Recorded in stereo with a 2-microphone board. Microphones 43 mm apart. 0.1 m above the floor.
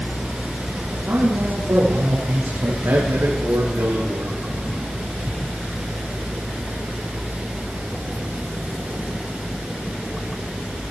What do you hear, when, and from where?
0.9 s a man speaking: 65° right (ahead or behind), 4.5 m; by 2.7 s 70° right (ahead or behind), 5 m
2.8 s a man speaking: 70° right (ahead or behind), 6 m